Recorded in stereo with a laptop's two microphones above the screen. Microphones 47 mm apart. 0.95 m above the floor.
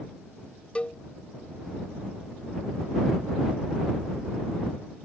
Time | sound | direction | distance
0.8 | a cowbell | 25° left (ahead or behind) | ?